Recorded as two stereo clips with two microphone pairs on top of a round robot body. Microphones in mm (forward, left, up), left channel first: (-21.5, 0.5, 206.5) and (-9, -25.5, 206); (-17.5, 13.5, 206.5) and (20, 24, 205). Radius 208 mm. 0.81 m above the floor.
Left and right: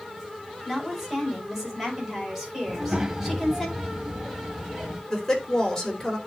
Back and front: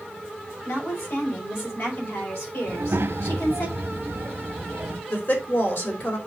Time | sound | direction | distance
0.7 | a woman speaking | 150° right | 5 m
2.7 | a child speaking | straight ahead | 1.6 m
5.1 | a woman speaking | 170° right | 3.5 m